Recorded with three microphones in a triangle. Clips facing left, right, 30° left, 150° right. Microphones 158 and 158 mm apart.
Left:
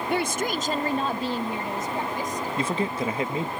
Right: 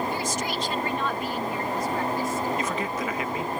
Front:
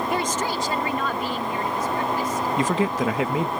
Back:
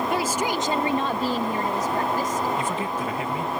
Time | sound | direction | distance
0.1 | a woman speaking | 115° left | ?
2.6 | a man speaking | 30° left | ?